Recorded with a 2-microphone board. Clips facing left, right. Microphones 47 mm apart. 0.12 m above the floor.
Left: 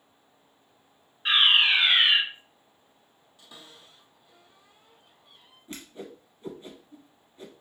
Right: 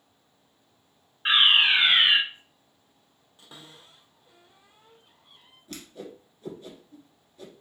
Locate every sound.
1.2 s a fire alarm: 25° right (ahead or behind), 2 m
3.4 s a cupboard door: 25° right (ahead or behind), 2.0 m
5.7 s a whoosh: 20° left (ahead or behind), 1.6 m